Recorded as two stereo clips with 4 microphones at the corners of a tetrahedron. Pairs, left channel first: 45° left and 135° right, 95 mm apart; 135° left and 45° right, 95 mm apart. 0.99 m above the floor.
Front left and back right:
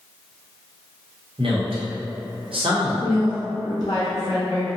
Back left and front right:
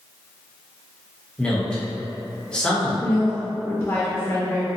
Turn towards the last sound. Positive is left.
turn(degrees=80)